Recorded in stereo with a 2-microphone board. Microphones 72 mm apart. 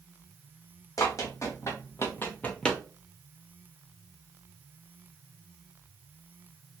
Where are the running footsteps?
50° left (ahead or behind), 1.5 m; by 2.8 s 5° left (ahead or behind), 0.6 m.